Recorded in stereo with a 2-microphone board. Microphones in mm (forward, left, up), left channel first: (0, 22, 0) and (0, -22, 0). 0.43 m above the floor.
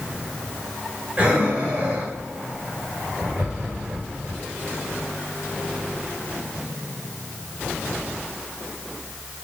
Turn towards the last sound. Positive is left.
turn(degrees=-30)  # may be behind; listen again after turning